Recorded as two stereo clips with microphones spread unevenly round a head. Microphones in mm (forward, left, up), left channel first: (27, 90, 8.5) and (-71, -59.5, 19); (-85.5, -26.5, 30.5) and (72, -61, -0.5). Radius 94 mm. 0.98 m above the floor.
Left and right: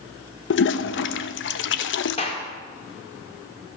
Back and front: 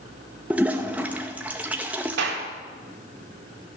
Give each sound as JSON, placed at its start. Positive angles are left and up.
{"t": 0.5, "sound": "a toilet flushing", "azimuth_deg": 65, "distance_m": 0.7}
{"t": 2.2, "sound": "a clap", "azimuth_deg": -5, "distance_m": 2.0}